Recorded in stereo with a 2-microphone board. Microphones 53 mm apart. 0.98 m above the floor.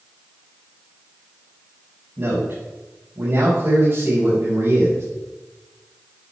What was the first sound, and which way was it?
A man speaking, 45° right (ahead or behind).